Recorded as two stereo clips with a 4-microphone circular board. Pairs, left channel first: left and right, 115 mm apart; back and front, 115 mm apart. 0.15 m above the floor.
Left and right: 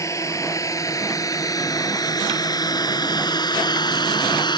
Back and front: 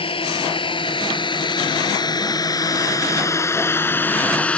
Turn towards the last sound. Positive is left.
turn(degrees=105)